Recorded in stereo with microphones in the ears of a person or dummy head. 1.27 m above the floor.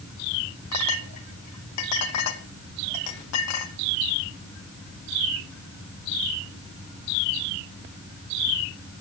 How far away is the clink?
About 2 m.